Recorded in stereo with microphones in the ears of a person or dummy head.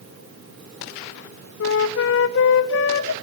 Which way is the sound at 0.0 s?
70° right (ahead or behind).